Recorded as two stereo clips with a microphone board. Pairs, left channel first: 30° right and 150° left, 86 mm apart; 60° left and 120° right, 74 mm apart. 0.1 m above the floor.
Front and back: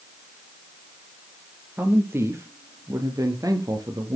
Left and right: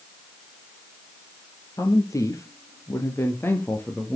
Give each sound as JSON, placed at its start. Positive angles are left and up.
{"t": 1.8, "sound": "a man speaking", "azimuth_deg": 90, "distance_m": 3.0}